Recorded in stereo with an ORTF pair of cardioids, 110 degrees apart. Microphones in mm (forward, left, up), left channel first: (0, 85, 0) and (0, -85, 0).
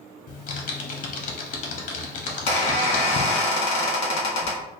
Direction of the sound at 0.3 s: 50° left.